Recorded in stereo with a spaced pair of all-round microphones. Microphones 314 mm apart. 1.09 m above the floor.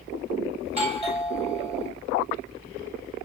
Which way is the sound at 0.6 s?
20° right (ahead or behind).